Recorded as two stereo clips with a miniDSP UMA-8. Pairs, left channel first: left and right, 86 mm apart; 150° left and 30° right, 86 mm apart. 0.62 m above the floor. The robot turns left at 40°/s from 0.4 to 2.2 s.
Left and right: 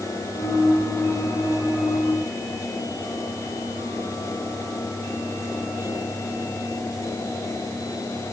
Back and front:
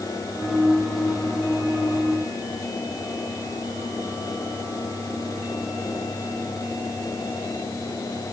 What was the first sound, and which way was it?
Only background noise.